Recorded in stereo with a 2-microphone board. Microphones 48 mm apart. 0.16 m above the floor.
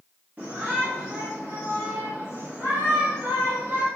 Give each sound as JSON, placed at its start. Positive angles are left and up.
{"t": 0.4, "sound": "a shout", "side_deg": -35, "distance_m": 2.0}